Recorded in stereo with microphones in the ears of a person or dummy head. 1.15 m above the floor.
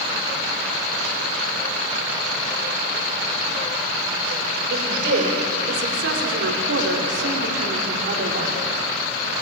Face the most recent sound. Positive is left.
turn(degrees=-40)  # may be behind; listen again after turning